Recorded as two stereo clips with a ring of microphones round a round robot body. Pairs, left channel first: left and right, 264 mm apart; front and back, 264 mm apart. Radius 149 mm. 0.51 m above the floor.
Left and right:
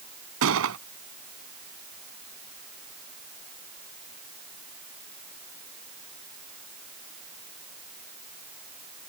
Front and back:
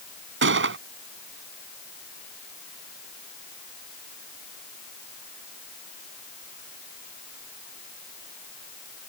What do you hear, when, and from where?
0.4 s a gunshot: 135° right